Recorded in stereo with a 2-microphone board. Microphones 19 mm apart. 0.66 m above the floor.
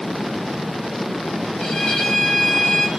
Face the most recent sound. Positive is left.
turn(degrees=60)  # may be behind; listen again after turning